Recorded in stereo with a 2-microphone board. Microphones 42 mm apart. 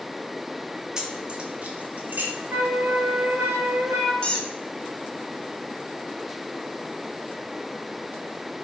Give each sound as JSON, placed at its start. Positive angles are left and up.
{"t": 1.0, "sound": "keys jangling", "side_deg": -15, "distance_m": 1.0}
{"t": 2.5, "sound": "a flute", "side_deg": -50, "distance_m": 1.8}
{"t": 4.2, "sound": "a squeak", "side_deg": 25, "distance_m": 0.9}